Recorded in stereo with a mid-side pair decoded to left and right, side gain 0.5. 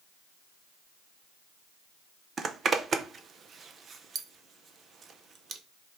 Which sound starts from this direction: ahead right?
A zipper, at 2.4 s.